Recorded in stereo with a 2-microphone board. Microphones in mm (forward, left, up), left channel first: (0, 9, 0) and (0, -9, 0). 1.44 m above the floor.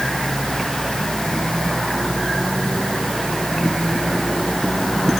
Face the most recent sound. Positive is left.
No sound to turn to.